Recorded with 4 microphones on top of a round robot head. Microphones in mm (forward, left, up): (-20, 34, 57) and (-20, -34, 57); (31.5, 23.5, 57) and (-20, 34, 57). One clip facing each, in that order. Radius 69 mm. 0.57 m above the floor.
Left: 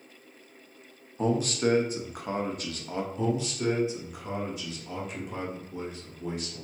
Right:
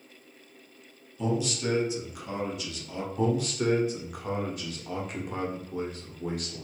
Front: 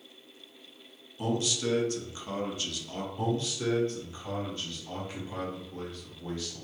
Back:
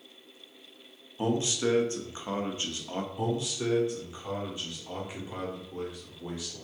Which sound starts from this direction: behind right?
A man speaking, at 3.2 s.